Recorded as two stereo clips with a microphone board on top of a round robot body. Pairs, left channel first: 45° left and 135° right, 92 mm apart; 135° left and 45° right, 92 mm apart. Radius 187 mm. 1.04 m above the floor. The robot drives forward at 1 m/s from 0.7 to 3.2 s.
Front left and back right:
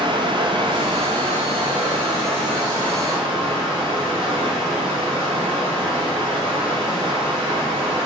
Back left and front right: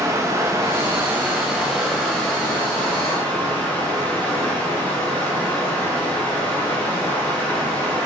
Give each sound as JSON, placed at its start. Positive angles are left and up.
{"t": 0.0, "sound": "running water", "azimuth_deg": -105, "distance_m": 1.8}